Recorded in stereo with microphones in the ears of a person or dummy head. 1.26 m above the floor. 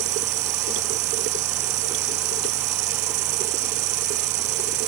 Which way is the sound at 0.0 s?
45° right (ahead or behind).